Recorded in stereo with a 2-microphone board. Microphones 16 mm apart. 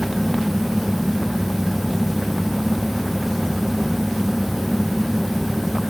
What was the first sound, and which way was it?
Only background noise.